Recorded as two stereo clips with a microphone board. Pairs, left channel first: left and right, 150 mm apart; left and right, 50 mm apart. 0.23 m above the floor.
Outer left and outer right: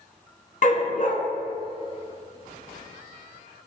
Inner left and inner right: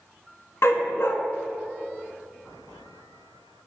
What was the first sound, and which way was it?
A dog barking, 60° left (ahead or behind).